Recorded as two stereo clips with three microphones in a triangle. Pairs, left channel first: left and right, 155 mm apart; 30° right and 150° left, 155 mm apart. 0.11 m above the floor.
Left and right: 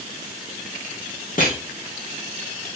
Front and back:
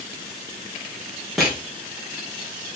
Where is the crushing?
60° left, 4.5 m.